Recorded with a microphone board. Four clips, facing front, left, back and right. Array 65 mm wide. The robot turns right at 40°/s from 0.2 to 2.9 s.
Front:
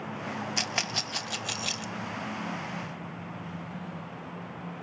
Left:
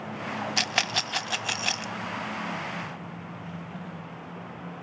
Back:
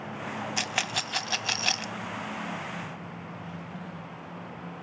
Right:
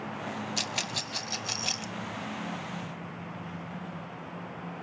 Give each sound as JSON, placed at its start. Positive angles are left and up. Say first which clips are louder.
{"t": 0.6, "sound": "a rattle", "louder": "left 6 dB, back 2 dB", "azimuth_deg": 95, "distance_m": 0.5}